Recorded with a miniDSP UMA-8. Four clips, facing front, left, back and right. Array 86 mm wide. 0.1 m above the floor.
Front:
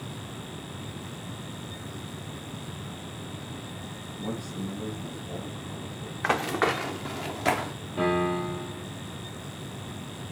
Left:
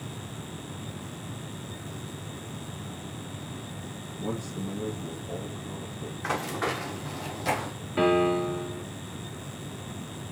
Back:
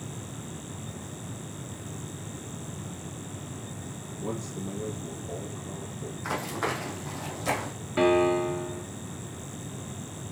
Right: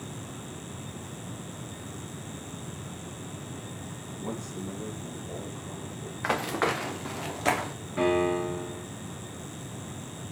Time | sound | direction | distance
4.2 | a man speaking | 15° left | 1.6 m
6.2 | running footsteps | 20° right | 0.9 m
8.0 | a piano | 170° left | 1.4 m